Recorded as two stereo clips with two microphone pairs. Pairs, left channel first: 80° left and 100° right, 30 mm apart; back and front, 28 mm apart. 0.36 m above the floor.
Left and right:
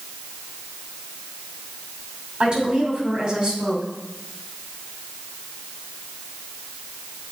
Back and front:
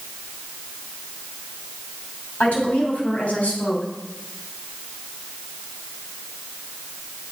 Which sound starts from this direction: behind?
A woman speaking, at 2.4 s.